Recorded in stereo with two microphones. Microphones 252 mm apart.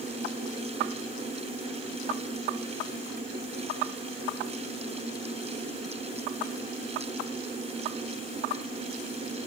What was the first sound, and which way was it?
Only background noise.